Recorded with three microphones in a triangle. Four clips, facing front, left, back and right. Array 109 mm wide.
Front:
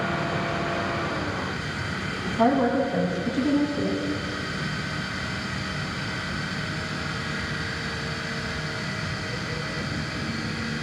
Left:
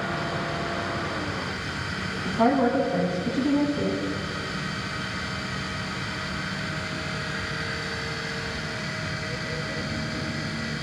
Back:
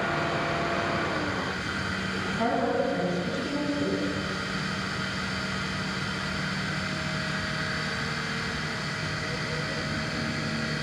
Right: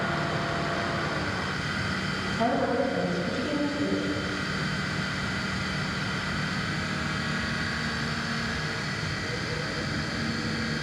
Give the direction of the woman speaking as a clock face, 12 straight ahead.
10 o'clock.